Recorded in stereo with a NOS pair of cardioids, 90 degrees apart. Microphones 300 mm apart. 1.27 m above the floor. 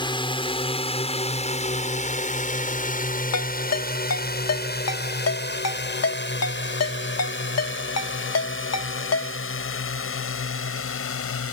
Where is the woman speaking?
I don't hear a woman speaking.